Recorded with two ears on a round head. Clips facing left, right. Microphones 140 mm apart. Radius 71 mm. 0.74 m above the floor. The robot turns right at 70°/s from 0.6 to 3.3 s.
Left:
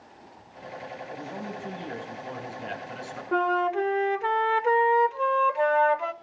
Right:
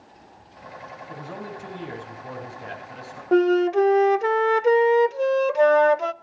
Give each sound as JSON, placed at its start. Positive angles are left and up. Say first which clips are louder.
{"t": 1.1, "sound": "a man speaking", "louder": "right 2 dB", "azimuth_deg": -85, "distance_m": 5.5}
{"t": 3.3, "sound": "a flute", "louder": "right 7 dB", "side_deg": -45, "distance_m": 0.7}